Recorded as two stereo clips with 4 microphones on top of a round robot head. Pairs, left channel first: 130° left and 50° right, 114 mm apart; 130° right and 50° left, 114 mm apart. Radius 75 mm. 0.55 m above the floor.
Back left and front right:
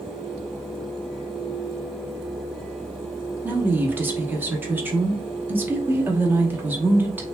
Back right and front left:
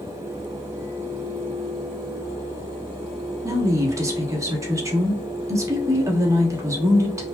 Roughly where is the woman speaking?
Ahead.